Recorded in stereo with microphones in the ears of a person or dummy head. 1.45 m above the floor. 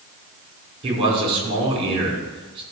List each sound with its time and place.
0.8 s a man speaking: 30° right (ahead or behind), 5 m